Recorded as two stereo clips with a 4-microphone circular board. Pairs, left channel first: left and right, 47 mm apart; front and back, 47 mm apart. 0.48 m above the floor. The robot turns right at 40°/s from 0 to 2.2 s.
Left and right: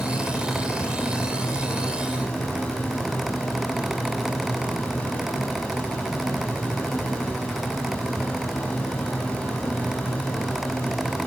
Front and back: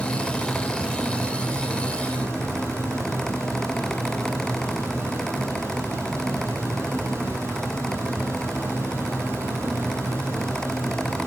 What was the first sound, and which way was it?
Running water, 65° left.